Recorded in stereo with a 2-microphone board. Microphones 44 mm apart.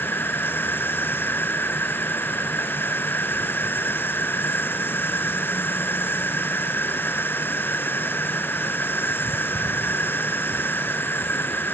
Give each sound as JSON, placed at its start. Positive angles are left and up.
{"t": 0.0, "sound": "an insect", "side_deg": 55}